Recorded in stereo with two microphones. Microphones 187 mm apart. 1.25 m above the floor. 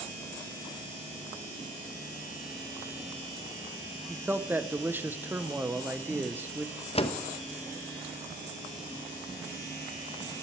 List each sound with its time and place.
4.1 s a man speaking: 10° right (ahead or behind), 0.6 m
7.0 s a door slam: 30° left (ahead or behind), 0.6 m